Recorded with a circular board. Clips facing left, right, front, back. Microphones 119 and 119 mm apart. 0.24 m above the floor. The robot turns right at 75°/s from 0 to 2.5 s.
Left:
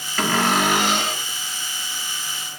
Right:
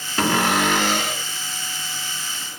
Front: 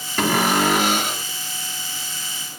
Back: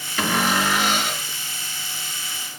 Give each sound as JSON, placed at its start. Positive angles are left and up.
{"t": 0.2, "sound": "a cupboard door", "azimuth_deg": -30, "distance_m": 1.9}